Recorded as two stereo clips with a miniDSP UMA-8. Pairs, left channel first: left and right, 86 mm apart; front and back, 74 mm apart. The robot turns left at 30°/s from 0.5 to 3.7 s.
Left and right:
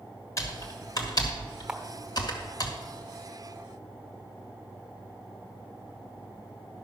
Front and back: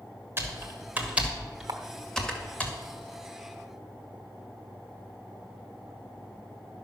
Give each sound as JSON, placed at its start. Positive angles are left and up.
{"t": 0.4, "sound": "typing on a keyboard", "azimuth_deg": 130, "distance_m": 1.7}
{"t": 1.7, "sound": "a camera shutter", "azimuth_deg": -170, "distance_m": 1.1}